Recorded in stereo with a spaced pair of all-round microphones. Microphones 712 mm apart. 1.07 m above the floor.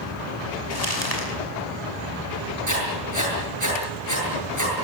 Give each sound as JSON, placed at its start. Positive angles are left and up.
{"t": 0.7, "sound": "crumpling", "side_deg": 60, "distance_m": 6.5}
{"t": 2.7, "sound": "writing", "side_deg": -25, "distance_m": 8.5}